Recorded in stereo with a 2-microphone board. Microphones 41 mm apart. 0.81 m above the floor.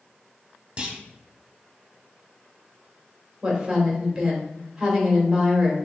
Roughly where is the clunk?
Right.